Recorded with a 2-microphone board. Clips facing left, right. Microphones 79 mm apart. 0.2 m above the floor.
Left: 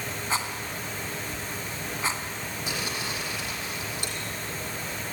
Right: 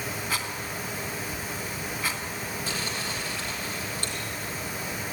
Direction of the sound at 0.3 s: 30° left (ahead or behind).